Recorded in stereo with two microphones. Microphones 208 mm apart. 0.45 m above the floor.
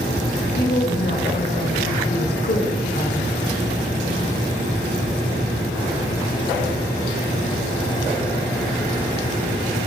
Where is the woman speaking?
50° left (ahead or behind), 1.9 m.